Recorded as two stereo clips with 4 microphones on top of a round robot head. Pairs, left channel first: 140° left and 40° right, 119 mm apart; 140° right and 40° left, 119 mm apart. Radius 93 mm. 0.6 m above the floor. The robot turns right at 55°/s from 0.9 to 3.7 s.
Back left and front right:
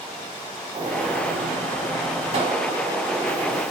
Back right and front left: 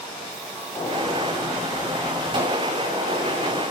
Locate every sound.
0.7 s a gunshot: 85° right, 5 m; by 3.6 s 65° left, 5 m